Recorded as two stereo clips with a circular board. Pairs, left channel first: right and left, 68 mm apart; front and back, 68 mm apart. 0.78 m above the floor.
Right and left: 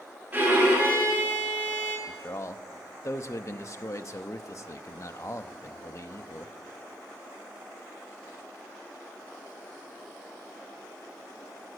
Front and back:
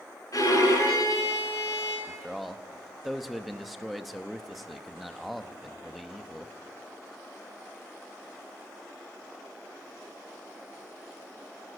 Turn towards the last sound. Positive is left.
turn(degrees=-90)